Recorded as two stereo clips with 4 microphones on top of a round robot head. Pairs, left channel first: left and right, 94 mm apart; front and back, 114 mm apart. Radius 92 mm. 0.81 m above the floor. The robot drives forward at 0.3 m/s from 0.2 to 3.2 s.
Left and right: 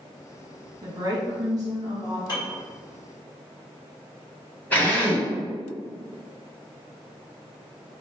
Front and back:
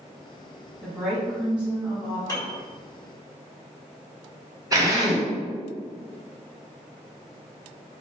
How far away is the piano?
About 1.9 m.